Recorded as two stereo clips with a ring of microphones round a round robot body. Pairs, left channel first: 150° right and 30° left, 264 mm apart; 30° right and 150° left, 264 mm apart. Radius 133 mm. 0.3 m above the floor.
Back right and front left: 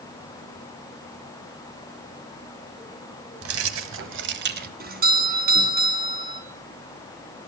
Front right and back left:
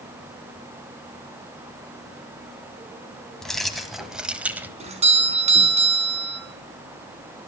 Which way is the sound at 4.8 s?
85° left.